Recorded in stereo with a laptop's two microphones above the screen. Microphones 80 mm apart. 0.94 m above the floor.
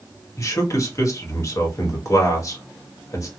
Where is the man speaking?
40° left (ahead or behind), 1.4 m.